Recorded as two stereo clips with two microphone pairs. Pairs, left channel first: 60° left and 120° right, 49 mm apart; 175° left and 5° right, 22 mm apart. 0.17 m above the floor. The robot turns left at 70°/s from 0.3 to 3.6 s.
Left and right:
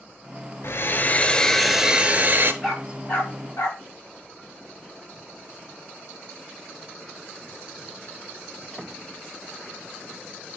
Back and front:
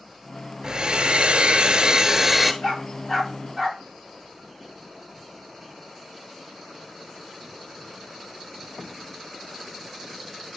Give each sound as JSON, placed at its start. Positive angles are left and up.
{"t": 0.6, "sound": "a hair dryer", "azimuth_deg": 40, "distance_m": 0.9}
{"t": 2.6, "sound": "a dog barking", "azimuth_deg": 140, "distance_m": 7.5}